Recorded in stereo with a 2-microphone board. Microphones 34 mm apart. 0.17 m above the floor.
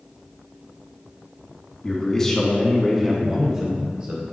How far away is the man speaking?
About 1.2 m.